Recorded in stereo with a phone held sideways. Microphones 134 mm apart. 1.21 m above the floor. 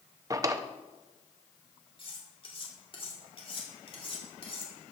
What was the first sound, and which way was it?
A drawer, 25° right (ahead or behind).